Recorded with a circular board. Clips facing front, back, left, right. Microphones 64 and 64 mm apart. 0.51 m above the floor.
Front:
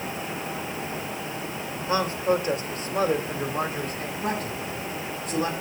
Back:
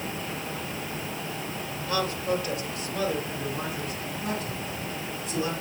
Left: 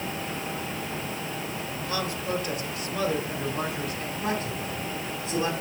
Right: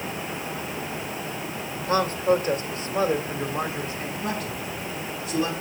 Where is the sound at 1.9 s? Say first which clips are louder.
Front 4 dB, right 9 dB; 55° right, 1.7 m; by 4.1 s 25° right, 2.5 m.